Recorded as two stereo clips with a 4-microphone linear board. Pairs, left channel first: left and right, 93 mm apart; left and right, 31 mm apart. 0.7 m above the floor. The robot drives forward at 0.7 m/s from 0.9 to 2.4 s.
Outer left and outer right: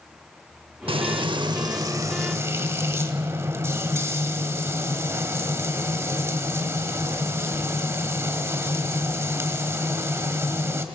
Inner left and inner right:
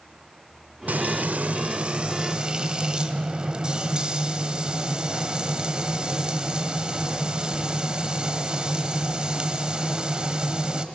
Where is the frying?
70° right (ahead or behind), 0.6 m; by 10.8 s 30° right (ahead or behind), 1.2 m.